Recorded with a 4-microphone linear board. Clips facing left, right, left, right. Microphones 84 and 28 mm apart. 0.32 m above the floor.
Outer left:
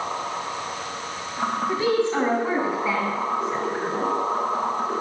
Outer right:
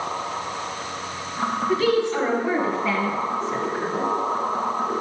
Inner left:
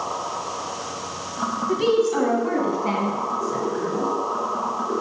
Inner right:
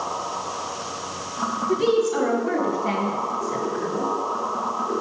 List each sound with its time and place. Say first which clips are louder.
1.7 s a woman speaking: outer right 2 dB, inner left 1 dB; 25° left (ahead or behind), 2 m; by 4.1 s 5° left (ahead or behind), 3 m